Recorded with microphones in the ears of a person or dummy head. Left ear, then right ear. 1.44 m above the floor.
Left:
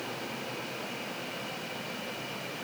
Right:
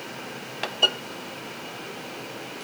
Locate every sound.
Only background noise.